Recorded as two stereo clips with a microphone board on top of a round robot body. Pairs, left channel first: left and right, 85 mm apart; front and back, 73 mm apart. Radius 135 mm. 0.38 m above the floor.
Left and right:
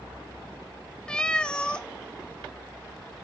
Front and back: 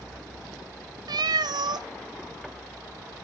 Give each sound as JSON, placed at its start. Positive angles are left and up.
{"t": 1.1, "sound": "a cat meowing", "azimuth_deg": 170, "distance_m": 1.0}